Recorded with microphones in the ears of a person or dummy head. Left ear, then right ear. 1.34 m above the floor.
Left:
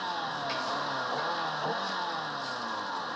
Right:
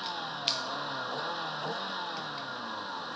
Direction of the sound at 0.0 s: 10° left (ahead or behind).